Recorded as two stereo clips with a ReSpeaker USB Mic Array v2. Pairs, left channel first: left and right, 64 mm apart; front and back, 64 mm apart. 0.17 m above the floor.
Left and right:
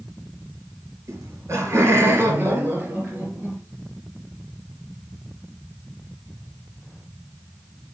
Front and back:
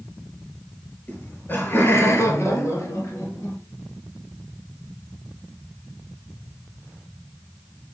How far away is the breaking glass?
No breaking glass in this recording.